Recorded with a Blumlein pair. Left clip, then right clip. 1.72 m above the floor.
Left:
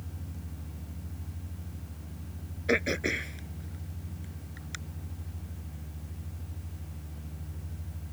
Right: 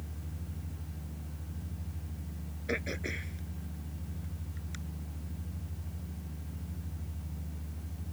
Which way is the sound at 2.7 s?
20° left.